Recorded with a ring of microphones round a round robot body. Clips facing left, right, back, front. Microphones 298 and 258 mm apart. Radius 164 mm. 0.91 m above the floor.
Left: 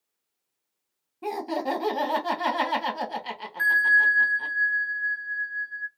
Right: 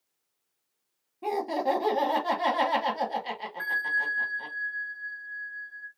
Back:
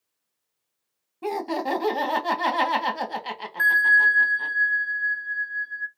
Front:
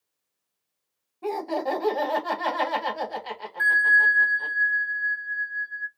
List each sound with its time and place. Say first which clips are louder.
1.2 s laughter: right 1 dB, even; 150° left, 1.4 m
3.6 s a bell: left 5 dB, back 1 dB; 130° left, 0.9 m